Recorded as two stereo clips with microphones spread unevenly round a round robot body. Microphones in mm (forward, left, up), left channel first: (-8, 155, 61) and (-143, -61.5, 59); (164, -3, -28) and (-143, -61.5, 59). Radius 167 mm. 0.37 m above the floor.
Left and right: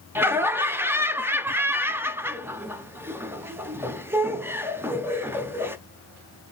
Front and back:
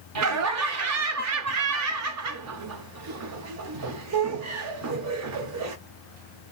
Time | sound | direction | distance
0.1 | laughter | 165° left | 0.9 m